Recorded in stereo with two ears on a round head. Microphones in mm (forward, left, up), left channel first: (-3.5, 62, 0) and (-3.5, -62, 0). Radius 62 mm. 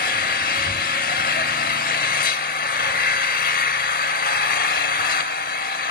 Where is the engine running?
70° left (ahead or behind), 0.8 m.